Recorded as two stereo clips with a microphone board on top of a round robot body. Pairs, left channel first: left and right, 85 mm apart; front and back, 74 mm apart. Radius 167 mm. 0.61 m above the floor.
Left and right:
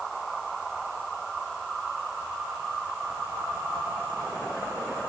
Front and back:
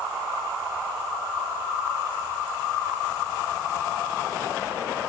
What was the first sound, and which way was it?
Only background noise.